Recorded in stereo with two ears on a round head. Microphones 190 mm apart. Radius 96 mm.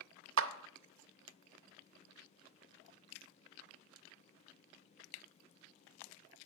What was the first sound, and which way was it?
A clap, 65° right (ahead or behind).